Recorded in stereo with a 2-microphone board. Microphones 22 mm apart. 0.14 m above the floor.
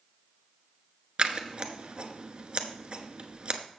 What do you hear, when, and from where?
1.2 s scissors: 45° right (ahead or behind), 0.9 m